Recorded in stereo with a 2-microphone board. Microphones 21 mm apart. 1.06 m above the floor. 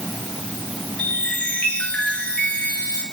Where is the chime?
80° left, 4.5 m.